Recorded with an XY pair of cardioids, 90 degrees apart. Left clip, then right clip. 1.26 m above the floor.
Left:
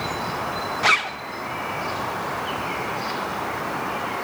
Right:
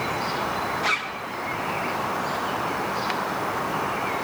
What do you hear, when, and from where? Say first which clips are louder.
0.8 s a zipper: left 9 dB; 60° left, 0.8 m